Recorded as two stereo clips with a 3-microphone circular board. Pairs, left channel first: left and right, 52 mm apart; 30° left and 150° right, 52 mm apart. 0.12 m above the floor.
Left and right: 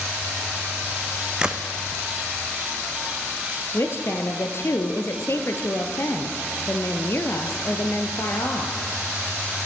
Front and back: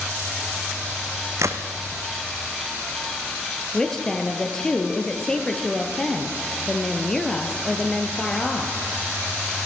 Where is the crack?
165° right, 1.3 m.